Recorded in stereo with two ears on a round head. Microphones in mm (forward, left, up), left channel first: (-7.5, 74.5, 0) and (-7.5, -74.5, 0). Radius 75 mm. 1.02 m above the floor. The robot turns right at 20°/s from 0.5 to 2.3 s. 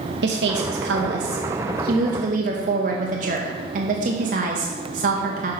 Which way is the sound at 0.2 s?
85° right.